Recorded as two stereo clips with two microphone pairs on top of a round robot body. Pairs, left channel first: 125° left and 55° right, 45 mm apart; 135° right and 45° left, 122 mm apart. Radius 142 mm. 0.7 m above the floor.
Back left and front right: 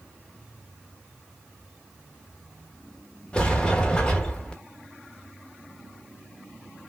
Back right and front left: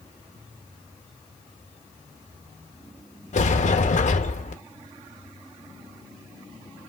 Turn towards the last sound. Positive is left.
turn(degrees=-165)